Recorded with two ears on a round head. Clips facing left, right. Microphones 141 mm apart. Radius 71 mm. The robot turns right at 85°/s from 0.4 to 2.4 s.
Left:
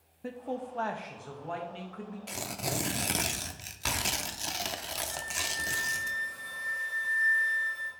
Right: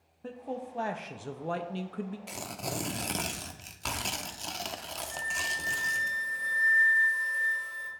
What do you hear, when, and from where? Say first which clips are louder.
0.2 s a man speaking: left 1 dB; 165° left, 0.6 m; by 2.2 s 45° right, 0.6 m
2.3 s tearing paper: left 1 dB; 5° right (ahead or behind), 0.5 m; by 6.1 s 5° left (ahead or behind), 0.5 m
5.1 s a flute: right 1 dB; 45° right (ahead or behind), 2.5 m